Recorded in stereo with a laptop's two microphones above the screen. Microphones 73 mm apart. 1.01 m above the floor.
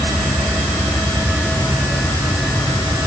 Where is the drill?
I don't hear a drill.